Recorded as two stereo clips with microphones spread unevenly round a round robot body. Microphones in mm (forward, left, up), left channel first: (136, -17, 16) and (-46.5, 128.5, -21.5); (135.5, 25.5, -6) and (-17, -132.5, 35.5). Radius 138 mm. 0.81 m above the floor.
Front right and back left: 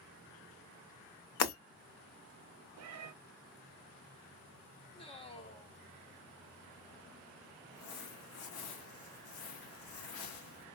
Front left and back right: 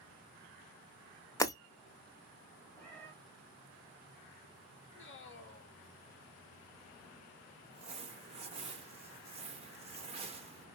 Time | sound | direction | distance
1.4 | breaking glass | 35° right | 1.1 m
2.8 | a cat meowing | 130° left | 0.6 m
4.9 | a man speaking | 30° left | 1.1 m
7.7 | crumpling | 65° right | 0.8 m